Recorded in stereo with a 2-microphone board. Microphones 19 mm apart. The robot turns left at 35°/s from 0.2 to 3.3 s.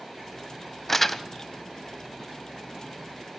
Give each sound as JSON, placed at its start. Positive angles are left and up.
{"t": 0.9, "sound": "crumpling", "side_deg": 15, "distance_m": 0.7}